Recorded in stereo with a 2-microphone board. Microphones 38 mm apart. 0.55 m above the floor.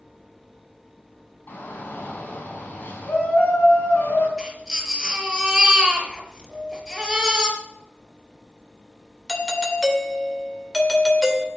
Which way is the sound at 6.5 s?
60° right (ahead or behind).